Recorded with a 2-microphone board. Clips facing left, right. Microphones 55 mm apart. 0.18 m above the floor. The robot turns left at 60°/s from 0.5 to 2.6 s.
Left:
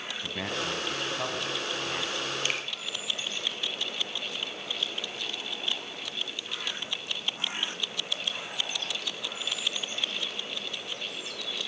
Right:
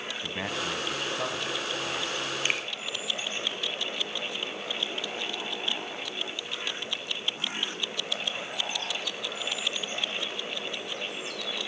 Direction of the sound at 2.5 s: 25° right (ahead or behind).